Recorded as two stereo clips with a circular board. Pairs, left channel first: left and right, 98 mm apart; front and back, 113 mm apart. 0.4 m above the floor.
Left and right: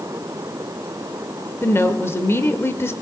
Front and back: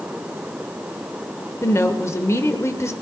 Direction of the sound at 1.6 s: 45° left.